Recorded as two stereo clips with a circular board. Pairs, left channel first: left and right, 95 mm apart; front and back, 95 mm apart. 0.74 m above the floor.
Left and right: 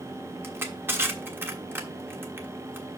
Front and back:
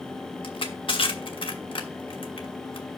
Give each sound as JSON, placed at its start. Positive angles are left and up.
{"t": 0.4, "sound": "crushing", "azimuth_deg": -25, "distance_m": 1.2}